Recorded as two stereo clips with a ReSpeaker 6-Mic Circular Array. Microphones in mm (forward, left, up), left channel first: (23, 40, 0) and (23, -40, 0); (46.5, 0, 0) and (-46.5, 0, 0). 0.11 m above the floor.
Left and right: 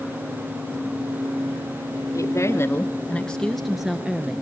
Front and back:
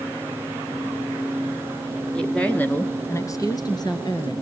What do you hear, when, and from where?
2.1 s a woman speaking: 80° left, 1.9 m; by 4.4 s 20° right, 2.5 m